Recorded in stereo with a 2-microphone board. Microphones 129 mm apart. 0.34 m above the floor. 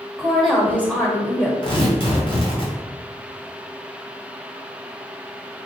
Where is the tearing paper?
45° left (ahead or behind), 1.7 m.